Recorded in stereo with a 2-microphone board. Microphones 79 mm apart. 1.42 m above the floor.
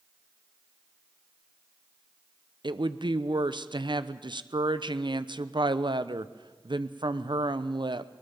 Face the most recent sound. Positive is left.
turn(degrees=-75)  # may be behind; listen again after turning